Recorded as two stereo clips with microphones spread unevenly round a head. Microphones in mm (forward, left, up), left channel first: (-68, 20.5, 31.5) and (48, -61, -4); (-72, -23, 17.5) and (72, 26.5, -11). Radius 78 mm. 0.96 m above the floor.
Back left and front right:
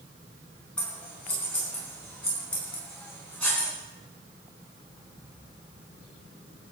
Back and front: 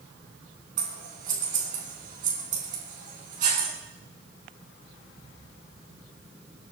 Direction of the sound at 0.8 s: 65° left.